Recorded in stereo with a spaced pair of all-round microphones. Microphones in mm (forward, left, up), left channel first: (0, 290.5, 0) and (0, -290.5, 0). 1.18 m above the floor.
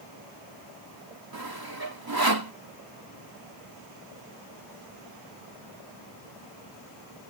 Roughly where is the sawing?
Right.